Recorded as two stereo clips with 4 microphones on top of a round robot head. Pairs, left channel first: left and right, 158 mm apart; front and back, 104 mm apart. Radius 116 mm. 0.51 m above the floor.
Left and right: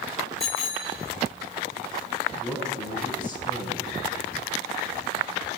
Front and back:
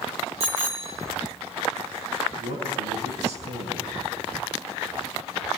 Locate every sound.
0.4 s a bicycle bell: straight behind, 5 m
2.4 s a man speaking: 170° right, 7.5 m